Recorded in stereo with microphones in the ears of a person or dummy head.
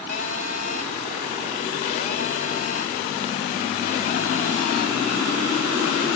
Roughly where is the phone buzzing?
Left.